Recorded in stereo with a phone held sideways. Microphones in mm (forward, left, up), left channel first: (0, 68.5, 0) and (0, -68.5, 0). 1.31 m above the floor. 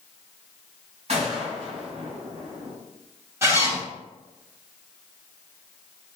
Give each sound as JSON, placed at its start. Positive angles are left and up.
{"t": 1.1, "sound": "a gunshot", "side_deg": -55, "distance_m": 1.8}
{"t": 3.4, "sound": "a zipper", "side_deg": -20, "distance_m": 1.5}